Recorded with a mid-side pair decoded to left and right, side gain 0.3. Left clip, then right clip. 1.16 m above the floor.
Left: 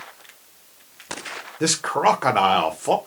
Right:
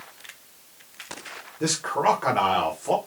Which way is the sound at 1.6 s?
70° left.